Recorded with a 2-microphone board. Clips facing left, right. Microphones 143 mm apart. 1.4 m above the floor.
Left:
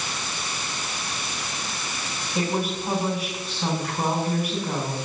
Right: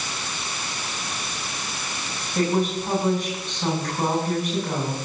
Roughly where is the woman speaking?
Centre.